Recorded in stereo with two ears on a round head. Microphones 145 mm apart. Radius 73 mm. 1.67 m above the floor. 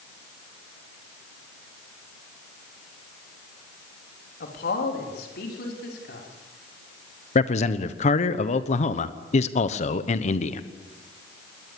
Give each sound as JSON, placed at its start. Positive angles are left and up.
{"t": 4.4, "sound": "a man speaking", "side_deg": 65, "distance_m": 3.5}
{"t": 7.3, "sound": "a man speaking", "side_deg": 45, "distance_m": 1.2}